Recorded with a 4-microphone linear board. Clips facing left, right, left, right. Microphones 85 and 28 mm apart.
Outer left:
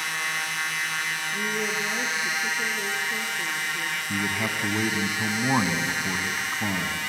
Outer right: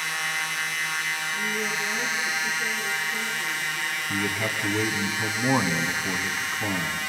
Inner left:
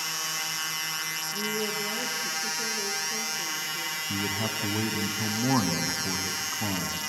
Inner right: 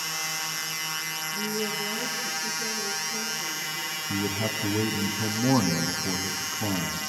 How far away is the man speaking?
About 1.4 m.